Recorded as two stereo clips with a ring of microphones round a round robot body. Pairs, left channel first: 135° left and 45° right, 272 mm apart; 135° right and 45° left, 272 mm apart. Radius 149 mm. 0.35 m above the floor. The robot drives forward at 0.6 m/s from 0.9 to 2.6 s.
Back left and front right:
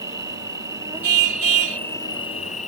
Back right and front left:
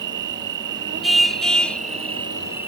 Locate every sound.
0.0 s an insect: 30° left; by 2.7 s 115° left
1.0 s a car horn: 45° right; by 1.8 s 50° right